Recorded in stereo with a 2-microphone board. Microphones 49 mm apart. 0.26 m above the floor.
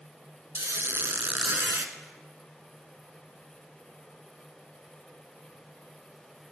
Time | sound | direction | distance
0.6 | a squeak | 60° right (ahead or behind) | 0.5 m